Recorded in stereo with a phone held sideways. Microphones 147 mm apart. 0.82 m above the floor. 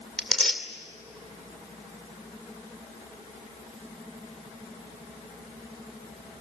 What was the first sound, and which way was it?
Tearing paper, 5° left (ahead or behind).